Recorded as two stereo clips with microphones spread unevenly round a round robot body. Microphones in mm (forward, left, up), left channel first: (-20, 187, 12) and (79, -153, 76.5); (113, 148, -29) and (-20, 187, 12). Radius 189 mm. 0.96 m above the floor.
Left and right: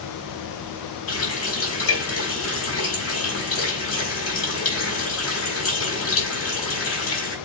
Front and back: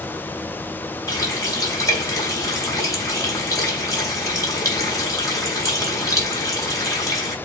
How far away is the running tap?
About 3.5 m.